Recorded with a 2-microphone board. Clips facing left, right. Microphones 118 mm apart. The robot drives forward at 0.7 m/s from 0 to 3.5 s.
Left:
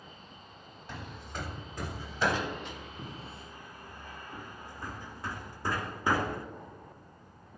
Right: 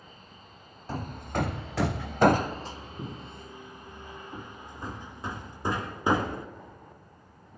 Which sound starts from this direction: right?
Hammering, at 0.9 s.